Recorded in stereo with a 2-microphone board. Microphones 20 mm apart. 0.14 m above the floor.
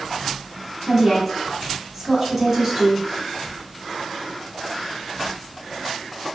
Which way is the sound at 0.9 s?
10° right (ahead or behind).